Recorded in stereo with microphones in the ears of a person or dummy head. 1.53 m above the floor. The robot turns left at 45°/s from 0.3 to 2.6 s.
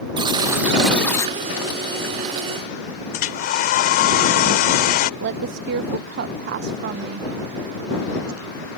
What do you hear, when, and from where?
0.2 s a buzzer: 155° right; by 1.4 s 160° left
3.1 s a hair dryer: 55° left (ahead or behind)
5.2 s a woman speaking: 65° right (ahead or behind)